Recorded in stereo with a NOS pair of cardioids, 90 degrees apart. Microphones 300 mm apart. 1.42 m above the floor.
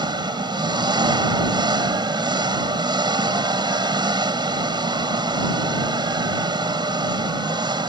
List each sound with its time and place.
0.0 s an engine running: 15° right